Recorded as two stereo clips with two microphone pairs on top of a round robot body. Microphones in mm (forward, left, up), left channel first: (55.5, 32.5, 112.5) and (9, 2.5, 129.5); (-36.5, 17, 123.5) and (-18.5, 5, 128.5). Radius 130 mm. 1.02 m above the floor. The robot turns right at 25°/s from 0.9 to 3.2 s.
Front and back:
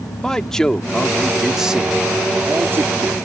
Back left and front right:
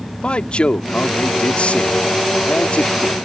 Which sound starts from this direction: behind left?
A man speaking, at 0.2 s.